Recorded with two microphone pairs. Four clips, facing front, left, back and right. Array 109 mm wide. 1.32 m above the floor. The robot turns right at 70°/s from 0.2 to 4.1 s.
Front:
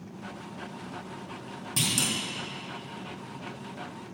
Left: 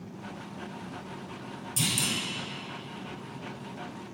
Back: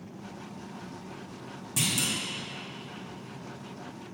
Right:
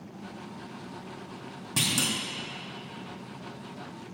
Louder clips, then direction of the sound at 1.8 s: Right 2 dB, front 1 dB; 90° right.